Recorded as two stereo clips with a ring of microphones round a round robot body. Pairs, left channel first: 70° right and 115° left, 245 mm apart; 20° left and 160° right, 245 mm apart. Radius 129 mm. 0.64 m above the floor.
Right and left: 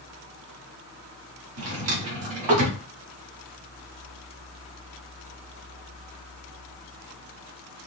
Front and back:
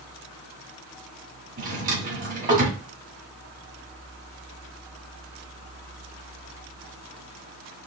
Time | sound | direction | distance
1.6 | a drawer | 145° left | 1.6 m